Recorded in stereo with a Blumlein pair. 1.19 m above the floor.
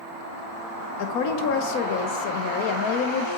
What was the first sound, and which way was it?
A woman speaking, 45° left.